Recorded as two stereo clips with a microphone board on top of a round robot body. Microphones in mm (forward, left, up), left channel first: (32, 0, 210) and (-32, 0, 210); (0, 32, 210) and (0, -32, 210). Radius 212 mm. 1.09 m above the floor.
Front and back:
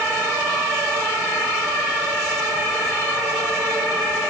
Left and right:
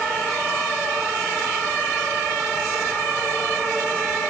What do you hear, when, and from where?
Only background noise.